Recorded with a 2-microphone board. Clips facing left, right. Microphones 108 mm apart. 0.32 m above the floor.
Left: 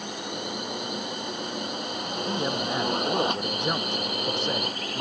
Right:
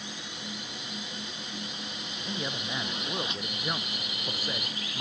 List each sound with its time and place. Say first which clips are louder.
0.0 s a drone: left 8 dB; 60° left (ahead or behind); by 5.0 s 50° left (ahead or behind)
2.3 s a man speaking: left 7 dB; 25° left (ahead or behind)